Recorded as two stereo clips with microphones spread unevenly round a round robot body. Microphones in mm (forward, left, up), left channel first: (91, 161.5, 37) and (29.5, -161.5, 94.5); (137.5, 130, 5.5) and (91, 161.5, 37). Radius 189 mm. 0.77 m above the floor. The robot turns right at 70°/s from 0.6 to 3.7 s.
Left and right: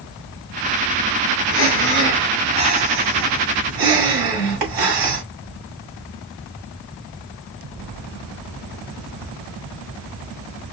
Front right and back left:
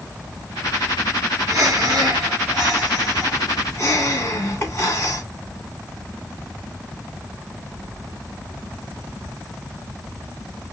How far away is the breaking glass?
No breaking glass in this recording.